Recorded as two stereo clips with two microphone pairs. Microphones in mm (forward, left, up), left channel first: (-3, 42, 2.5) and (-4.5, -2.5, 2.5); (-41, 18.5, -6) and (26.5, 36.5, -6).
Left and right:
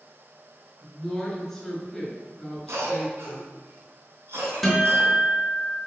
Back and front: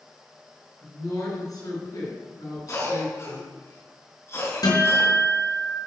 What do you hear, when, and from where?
0.8 s a woman speaking: 165° left, 4.5 m
2.7 s a cough: 115° right, 4 m
4.6 s a guitar: 175° left, 4.5 m